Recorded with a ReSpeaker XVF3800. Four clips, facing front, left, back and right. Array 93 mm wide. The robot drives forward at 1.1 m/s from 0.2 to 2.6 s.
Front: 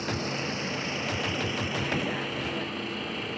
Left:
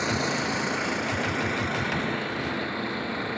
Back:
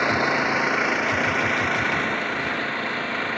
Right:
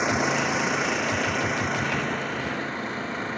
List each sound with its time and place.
0.0 s an engine running: 155° right; by 3.4 s 165° right